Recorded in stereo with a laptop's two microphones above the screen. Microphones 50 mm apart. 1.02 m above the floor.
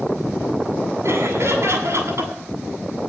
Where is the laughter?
70° right (ahead or behind), 8 m.